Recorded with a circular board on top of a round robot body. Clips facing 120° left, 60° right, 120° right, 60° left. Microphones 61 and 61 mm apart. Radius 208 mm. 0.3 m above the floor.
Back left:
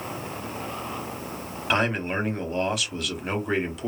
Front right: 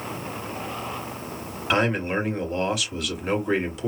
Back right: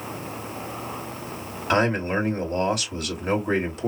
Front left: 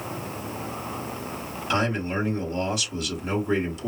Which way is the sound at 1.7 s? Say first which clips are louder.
Front right 2 dB, back right 4 dB; 145° right.